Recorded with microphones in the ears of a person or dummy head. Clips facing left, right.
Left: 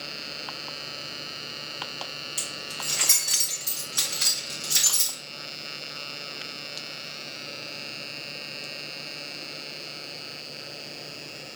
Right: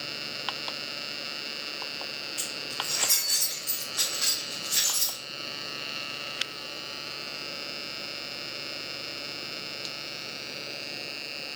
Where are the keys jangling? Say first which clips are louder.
Right 2 dB; 40° left (ahead or behind), 1.1 m.